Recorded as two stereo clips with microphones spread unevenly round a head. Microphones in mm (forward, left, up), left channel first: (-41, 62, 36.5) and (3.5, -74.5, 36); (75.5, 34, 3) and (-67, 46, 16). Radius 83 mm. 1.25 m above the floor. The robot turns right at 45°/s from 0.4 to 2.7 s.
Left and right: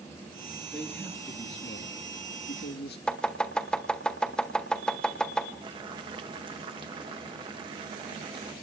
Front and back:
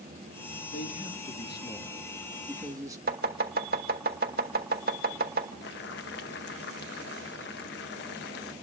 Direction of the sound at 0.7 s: 15° left.